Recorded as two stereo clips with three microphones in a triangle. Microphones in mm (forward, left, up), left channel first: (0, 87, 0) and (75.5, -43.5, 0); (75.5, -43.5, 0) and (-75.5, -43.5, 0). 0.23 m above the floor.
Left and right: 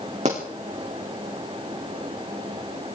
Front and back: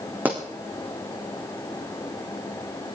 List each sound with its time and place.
0.2 s a pop: 100° right, 5 m